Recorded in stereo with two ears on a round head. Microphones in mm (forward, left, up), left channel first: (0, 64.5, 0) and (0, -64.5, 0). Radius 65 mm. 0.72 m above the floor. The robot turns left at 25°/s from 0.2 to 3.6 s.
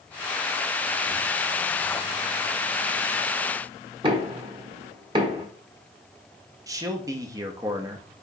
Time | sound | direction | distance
4.0 | knocking | 35° right (ahead or behind) | 0.9 m
6.7 | a man speaking | 25° right (ahead or behind) | 0.7 m